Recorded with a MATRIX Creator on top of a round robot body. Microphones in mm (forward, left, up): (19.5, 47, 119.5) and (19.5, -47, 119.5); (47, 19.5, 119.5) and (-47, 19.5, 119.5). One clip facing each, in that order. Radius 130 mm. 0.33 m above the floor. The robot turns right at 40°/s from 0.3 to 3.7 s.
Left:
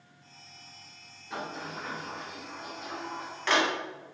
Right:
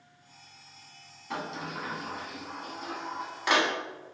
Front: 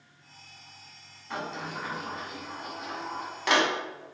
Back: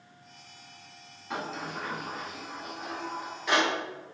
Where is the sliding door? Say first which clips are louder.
Right 2 dB, even; 100° right, 0.8 m; by 3.7 s 5° right, 0.8 m.